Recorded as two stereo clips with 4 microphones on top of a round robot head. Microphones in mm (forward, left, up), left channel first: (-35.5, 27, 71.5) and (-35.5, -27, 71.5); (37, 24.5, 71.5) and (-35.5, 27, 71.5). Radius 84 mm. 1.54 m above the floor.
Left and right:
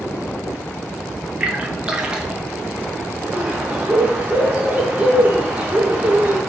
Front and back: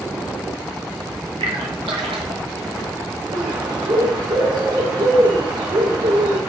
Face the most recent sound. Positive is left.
turn(degrees=-160)